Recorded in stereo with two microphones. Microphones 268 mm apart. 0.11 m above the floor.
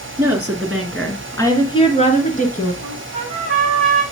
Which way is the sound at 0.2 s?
10° right (ahead or behind).